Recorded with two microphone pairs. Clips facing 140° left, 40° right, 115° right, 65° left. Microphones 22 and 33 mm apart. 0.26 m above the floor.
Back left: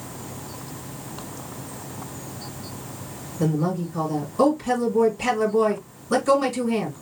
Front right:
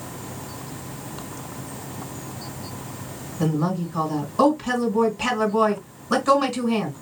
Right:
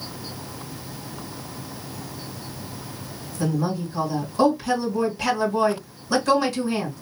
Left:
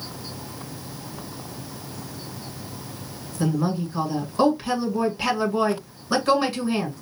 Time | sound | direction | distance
3.4 | a woman speaking | straight ahead | 2.5 m